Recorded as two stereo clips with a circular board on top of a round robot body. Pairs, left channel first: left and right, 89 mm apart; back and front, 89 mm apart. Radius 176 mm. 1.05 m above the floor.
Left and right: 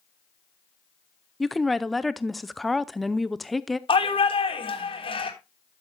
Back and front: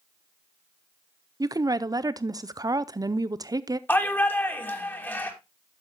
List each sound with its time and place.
1.4 s a woman speaking: straight ahead, 0.8 m
3.9 s a shout: 110° left, 2.5 m